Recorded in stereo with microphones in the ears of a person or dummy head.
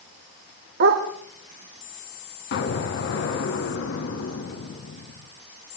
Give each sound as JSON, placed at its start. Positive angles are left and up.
{"t": 0.8, "sound": "a dog barking", "side_deg": -55, "distance_m": 2.0}
{"t": 2.5, "sound": "an explosion", "side_deg": 75, "distance_m": 4.0}